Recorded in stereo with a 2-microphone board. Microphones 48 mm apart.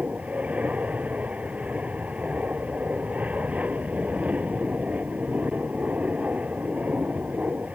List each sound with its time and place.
0.0 s an aircraft: 30° right (ahead or behind)